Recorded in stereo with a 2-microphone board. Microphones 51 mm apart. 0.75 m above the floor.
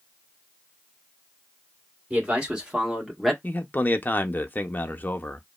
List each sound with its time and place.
2.1 s a man speaking: 20° right (ahead or behind), 1.8 m; by 3.3 s centre (ahead or behind), 1.2 m
3.4 s a man speaking: 35° left (ahead or behind), 0.6 m